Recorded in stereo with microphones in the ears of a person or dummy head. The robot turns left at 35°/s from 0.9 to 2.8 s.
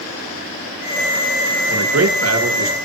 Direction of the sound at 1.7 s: 75° right.